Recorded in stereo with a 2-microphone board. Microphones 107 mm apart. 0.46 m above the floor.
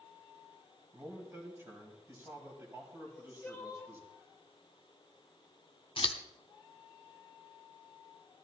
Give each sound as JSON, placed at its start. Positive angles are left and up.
{"t": 0.9, "sound": "a man speaking", "side_deg": -25, "distance_m": 3.5}
{"t": 3.0, "sound": "crying", "side_deg": 15, "distance_m": 1.6}
{"t": 6.0, "sound": "scissors", "side_deg": 55, "distance_m": 0.9}